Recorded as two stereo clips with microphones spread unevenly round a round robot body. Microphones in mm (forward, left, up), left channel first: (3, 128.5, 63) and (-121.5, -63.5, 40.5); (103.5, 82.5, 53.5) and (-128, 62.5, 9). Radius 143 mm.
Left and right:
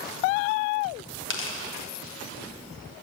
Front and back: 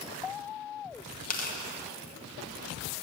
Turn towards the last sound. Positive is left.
turn(degrees=55)